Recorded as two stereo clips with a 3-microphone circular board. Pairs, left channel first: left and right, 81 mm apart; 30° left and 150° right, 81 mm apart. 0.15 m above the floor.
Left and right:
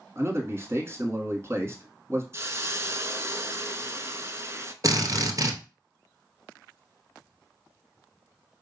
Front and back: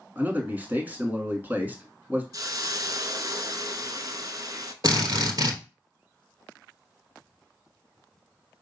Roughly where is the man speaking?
Right.